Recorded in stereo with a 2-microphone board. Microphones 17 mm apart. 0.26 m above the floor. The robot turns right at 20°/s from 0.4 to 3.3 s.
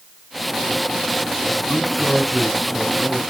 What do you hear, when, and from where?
1.7 s a man speaking: 25° left, 3.5 m; by 3.2 s 55° left, 3.5 m